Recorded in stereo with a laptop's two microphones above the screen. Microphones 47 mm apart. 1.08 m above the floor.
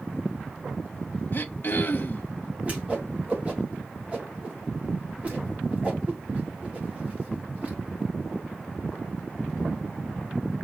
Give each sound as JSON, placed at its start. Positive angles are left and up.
{"t": 1.3, "sound": "throat clearing", "side_deg": 45, "distance_m": 0.9}
{"t": 2.6, "sound": "a whoosh", "side_deg": -30, "distance_m": 1.7}